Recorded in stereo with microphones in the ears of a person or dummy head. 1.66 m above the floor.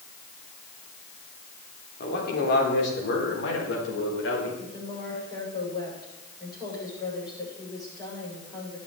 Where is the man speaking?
60° left (ahead or behind), 4 m; by 4.5 s 80° left, 5 m.